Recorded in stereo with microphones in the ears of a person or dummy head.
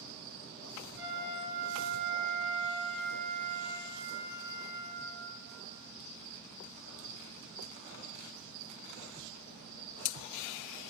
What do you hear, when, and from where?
0.9 s a flute: 20° right (ahead or behind), 1.8 m